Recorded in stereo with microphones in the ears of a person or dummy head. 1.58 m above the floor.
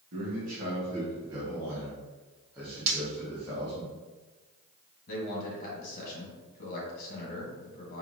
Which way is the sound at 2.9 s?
35° right (ahead or behind).